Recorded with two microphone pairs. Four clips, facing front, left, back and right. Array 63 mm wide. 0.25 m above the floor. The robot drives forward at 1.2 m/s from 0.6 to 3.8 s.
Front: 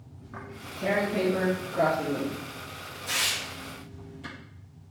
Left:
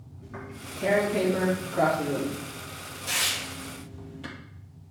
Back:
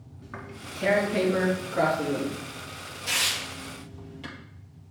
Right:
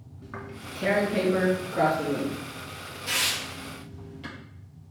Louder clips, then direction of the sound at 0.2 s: Right 1 dB, back 1 dB; 140° right.